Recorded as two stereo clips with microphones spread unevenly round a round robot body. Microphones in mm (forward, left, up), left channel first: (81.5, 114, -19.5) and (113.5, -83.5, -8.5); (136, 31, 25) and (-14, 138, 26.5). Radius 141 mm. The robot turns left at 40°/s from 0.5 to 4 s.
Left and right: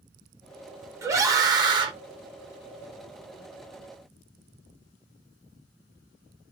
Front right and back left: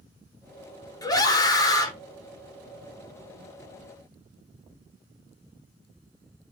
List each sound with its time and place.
1.0 s a scream: 20° right, 0.9 m; by 1.9 s 55° right, 0.9 m